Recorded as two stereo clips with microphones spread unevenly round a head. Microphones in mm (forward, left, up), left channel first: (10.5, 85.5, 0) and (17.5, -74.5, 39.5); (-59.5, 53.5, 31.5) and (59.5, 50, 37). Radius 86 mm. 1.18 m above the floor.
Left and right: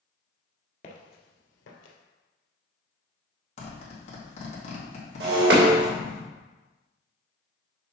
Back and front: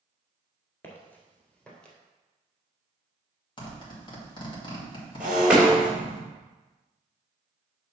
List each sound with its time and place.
0.8 s footsteps: 125° left, 1.2 m; by 2.0 s 95° left, 2 m
3.6 s a zipper: 135° left, 2.5 m
5.2 s breaking glass: 85° right, 1.7 m